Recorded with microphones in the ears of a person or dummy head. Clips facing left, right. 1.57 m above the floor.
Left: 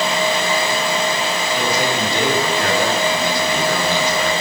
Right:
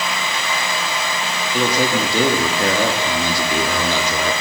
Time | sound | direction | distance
1.5 | a man speaking | 60° right (ahead or behind) | 4 m